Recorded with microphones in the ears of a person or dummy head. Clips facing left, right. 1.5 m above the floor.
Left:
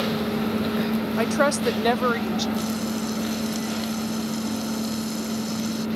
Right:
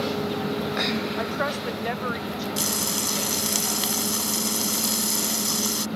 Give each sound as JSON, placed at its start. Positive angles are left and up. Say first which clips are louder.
{"t": 1.2, "sound": "a woman speaking", "louder": "left 6 dB", "side_deg": 45}
{"t": 2.6, "sound": "frying", "louder": "left 4 dB", "side_deg": -75}